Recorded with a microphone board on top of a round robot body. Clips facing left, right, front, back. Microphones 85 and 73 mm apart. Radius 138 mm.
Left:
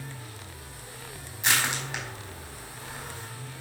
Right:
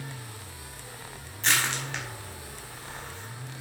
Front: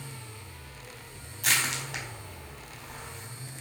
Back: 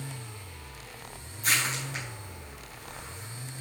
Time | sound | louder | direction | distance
1.4 | crushing | even, even | 15° left | 4.5 m